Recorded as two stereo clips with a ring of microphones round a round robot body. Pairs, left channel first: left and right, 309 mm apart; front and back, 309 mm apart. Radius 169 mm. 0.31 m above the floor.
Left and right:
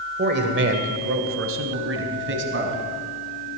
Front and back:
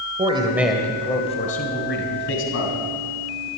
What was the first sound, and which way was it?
A man speaking, 125° right.